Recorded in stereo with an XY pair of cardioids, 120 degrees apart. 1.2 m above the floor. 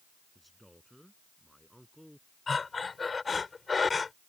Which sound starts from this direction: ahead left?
Breathing, at 2.5 s.